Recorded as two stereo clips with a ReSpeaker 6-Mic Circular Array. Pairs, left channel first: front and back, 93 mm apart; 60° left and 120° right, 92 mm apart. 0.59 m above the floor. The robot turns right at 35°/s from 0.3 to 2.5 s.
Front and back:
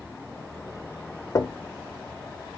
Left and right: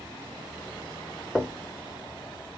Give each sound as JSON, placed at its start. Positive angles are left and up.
{"t": 1.4, "sound": "knocking", "azimuth_deg": -40, "distance_m": 0.7}